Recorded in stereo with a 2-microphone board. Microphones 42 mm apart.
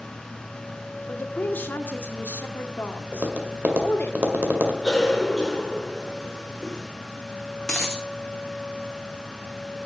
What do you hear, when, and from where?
1.1 s a woman speaking: 55° left (ahead or behind), 1.5 m
3.1 s tapping: 45° right (ahead or behind), 1.9 m
4.8 s a cough: 15° left (ahead or behind), 3 m
7.6 s a dropped coin: 15° left (ahead or behind), 2 m